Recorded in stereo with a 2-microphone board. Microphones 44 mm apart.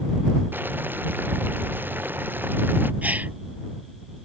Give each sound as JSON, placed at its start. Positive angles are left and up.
{"t": 0.5, "sound": "boiling", "side_deg": -45}
{"t": 3.0, "sound": "a gasp", "side_deg": -35}